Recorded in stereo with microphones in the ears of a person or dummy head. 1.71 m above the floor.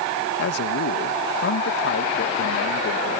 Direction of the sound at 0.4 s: 55° left (ahead or behind).